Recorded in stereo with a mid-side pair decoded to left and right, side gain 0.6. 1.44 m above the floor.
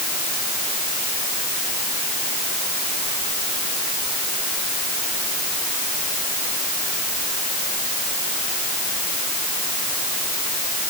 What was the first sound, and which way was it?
Only background noise.